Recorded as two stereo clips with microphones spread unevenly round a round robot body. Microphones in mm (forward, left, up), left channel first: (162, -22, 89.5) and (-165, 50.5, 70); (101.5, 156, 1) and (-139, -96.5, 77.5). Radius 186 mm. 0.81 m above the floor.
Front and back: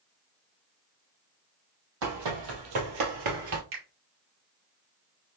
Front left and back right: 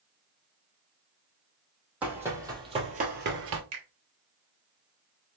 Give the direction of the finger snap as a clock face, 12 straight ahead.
6 o'clock.